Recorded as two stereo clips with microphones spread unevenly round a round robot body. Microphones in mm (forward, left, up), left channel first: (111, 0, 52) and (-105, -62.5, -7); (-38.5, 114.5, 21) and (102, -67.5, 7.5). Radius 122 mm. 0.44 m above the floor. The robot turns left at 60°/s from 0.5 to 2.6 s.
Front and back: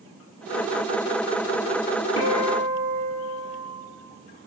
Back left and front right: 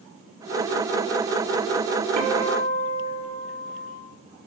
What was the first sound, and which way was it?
A guitar, 40° right.